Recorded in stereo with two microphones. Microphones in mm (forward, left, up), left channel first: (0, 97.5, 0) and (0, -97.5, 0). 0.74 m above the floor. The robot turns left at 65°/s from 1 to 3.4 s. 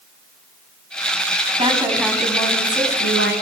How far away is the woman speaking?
About 7 m.